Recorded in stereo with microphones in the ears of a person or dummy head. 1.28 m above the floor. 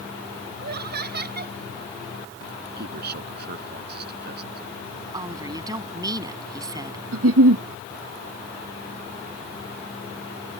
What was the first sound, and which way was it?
Laughter, 55° right (ahead or behind).